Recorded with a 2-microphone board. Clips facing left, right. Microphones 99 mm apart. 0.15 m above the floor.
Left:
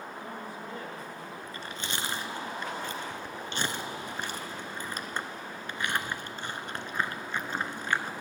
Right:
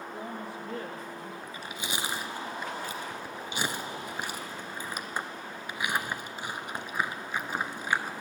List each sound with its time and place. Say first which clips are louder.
0.1 s a woman speaking: right 2 dB; 50° right (ahead or behind), 1.8 m; by 1.3 s 40° right (ahead or behind), 1.6 m
1.4 s chewing: even; 10° right (ahead or behind), 0.6 m